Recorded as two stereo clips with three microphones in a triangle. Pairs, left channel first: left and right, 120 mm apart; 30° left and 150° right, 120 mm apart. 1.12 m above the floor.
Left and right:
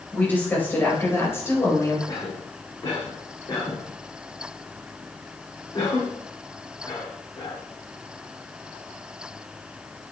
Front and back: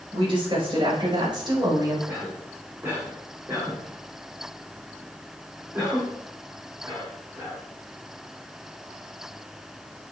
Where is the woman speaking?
165° left, 4.5 m; by 2.0 s 155° left, 3.5 m.